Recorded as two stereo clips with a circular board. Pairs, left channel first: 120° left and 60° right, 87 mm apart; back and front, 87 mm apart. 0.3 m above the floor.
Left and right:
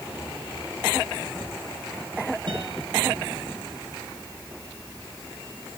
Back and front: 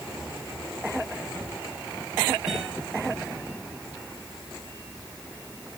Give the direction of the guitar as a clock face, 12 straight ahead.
3 o'clock.